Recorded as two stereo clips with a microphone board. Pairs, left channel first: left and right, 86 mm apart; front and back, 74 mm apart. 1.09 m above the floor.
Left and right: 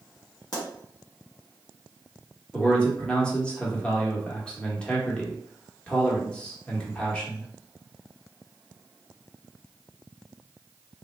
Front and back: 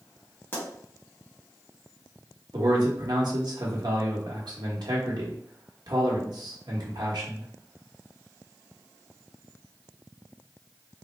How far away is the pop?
About 1.5 m.